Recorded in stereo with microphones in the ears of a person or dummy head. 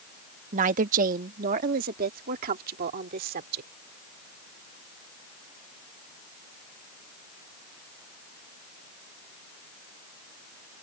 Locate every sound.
0.5 s a woman speaking: 45° right (ahead or behind); by 3.7 s 55° right (ahead or behind)